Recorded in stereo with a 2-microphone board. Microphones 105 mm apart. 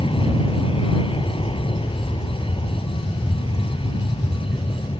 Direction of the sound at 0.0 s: 55° left (ahead or behind).